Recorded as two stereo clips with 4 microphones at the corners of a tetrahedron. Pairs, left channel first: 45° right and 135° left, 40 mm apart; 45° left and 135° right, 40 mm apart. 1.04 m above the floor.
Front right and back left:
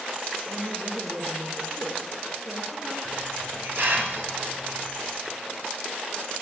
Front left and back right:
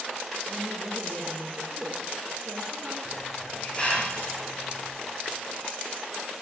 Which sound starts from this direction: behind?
A woman speaking, at 0.5 s.